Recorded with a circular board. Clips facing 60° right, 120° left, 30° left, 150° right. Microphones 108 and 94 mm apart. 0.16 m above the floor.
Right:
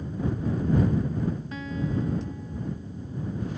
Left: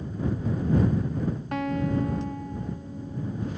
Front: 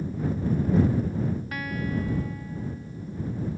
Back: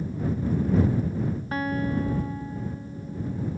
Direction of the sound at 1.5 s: 150° left.